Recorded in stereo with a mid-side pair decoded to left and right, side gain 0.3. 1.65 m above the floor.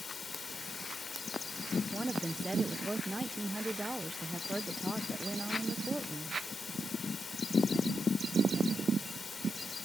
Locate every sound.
0.0 s running water: 60° left
1.9 s a woman speaking: 15° right